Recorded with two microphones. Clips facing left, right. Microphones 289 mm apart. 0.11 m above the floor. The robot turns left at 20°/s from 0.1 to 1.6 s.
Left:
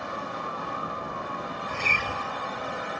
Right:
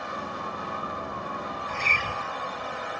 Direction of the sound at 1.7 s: 45° left (ahead or behind).